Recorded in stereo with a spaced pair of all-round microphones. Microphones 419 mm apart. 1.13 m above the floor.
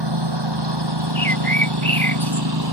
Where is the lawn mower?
85° right; by 2.7 s 60° right (ahead or behind).